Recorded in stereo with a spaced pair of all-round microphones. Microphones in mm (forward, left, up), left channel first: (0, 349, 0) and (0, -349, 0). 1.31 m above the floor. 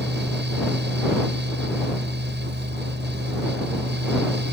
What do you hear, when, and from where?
0.0 s a fan: 15° right (ahead or behind)